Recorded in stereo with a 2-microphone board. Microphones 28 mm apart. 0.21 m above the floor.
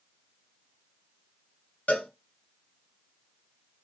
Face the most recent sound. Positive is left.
turn(degrees=65)  # may be behind; listen again after turning